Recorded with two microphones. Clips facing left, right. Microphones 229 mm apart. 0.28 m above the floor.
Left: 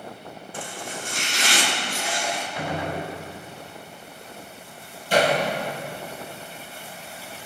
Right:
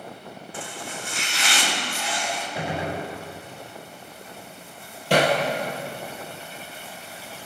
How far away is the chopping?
About 5.5 m.